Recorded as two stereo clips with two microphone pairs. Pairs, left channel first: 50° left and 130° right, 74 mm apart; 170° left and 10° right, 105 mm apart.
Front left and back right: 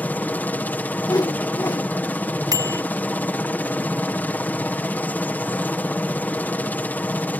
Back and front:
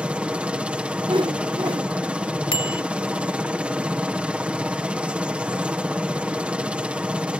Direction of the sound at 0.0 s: 50° left.